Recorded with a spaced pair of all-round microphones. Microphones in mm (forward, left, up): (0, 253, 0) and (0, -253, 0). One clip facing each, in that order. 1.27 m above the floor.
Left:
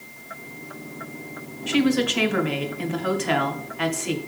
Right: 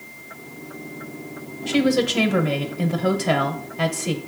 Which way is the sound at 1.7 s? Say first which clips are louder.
Right 1 dB; 60° right (ahead or behind).